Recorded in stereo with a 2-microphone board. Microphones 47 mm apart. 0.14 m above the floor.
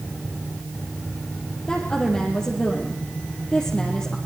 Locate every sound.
1.7 s a woman speaking: 20° left (ahead or behind), 4 m